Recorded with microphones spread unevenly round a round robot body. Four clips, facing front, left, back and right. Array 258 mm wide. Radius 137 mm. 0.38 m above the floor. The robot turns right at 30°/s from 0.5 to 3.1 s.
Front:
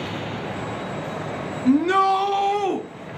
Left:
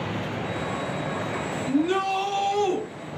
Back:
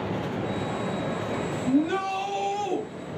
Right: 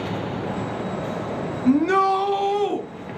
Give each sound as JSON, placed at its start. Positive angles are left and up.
{"t": 1.6, "sound": "a shout", "azimuth_deg": -35, "distance_m": 3.0}